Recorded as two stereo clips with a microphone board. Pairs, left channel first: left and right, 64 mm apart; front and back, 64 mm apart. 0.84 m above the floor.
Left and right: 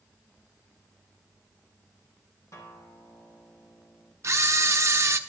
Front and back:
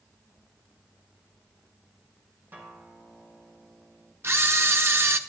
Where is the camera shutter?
130° right, 0.8 m.